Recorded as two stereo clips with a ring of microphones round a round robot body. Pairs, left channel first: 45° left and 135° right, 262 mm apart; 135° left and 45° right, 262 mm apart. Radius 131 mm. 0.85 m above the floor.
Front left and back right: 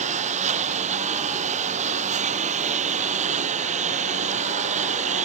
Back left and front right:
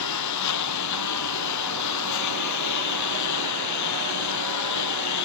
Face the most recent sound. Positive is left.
turn(degrees=160)